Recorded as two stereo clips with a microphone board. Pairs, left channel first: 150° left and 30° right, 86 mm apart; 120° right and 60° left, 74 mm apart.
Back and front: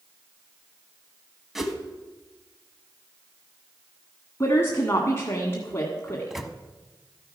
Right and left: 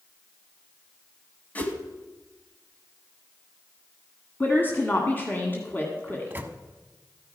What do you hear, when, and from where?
1.6 s a whoosh: 115° right, 1.2 m
4.4 s a woman speaking: 165° right, 1.6 m
6.1 s a microwave: 55° left, 0.8 m